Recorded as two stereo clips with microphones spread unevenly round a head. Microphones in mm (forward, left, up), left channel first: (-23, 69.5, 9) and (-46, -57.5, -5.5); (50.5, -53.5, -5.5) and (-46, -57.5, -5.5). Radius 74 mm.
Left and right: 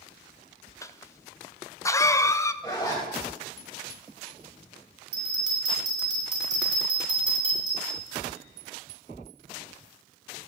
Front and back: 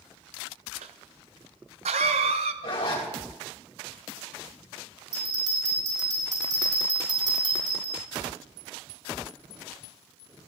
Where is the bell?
145° right, 5.5 m.